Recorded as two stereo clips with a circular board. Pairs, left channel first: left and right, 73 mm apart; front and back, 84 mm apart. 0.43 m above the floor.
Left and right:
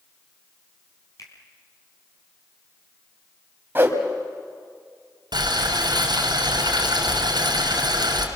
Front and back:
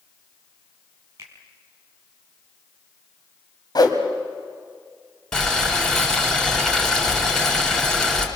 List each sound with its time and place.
1.2 s a finger snap: 125° left, 4 m
3.8 s a whoosh: 30° right, 2.5 m
5.3 s boiling: 85° right, 3.5 m